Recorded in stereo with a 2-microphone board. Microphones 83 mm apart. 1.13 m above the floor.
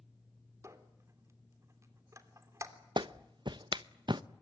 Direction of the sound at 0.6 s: 35° right (ahead or behind).